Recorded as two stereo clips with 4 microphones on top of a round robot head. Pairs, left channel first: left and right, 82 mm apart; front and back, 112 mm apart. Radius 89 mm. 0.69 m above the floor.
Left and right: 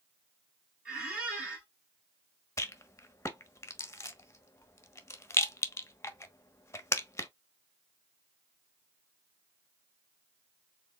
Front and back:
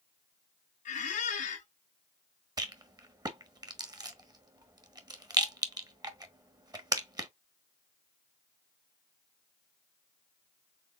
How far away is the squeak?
About 1.3 m.